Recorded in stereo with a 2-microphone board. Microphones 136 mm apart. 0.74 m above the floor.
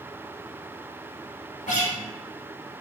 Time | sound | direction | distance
1.7 | a guitar | 65° left (ahead or behind) | 1.0 m